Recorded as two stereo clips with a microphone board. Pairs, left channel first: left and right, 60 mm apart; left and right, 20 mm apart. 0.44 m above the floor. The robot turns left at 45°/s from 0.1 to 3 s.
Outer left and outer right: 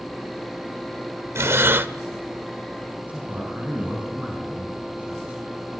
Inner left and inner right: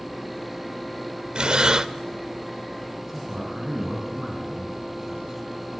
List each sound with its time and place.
1.4 s breathing: 50° right (ahead or behind), 0.7 m; by 1.9 s 35° right (ahead or behind), 0.7 m
3.0 s a man speaking: 25° right (ahead or behind), 5.5 m